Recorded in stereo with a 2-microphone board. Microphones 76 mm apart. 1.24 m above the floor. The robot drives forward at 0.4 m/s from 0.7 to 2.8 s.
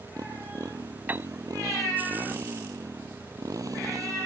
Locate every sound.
0.0 s a motorcycle: 50° right (ahead or behind)
1.1 s a piano: 25° right (ahead or behind)